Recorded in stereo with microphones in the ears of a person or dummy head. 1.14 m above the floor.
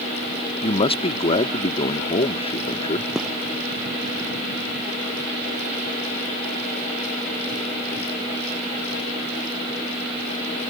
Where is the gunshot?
5° right (ahead or behind).